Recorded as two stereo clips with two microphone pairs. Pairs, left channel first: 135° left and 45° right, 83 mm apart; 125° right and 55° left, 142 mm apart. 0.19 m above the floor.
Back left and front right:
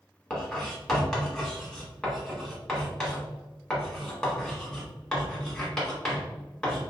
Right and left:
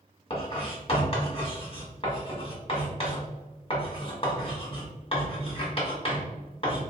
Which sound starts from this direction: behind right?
Writing, at 0.3 s.